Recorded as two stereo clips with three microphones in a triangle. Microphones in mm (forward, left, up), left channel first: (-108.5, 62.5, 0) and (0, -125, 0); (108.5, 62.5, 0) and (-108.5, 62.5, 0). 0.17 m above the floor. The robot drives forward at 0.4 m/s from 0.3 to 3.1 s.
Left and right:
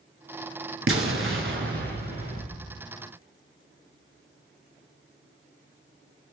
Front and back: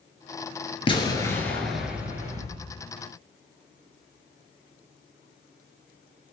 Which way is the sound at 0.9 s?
65° right.